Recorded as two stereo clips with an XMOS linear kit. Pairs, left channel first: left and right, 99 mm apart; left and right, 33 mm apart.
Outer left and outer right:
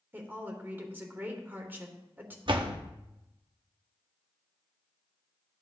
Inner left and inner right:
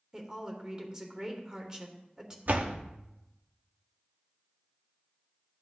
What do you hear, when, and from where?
0.1 s a woman speaking: 20° right (ahead or behind), 2 m
2.5 s a door slam: 55° right (ahead or behind), 1.0 m